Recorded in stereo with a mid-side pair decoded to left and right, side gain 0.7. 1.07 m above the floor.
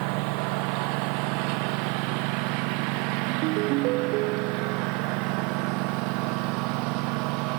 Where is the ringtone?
65° right.